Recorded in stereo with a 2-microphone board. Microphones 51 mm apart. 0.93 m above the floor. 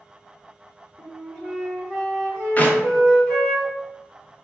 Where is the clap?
30° left (ahead or behind), 0.5 m.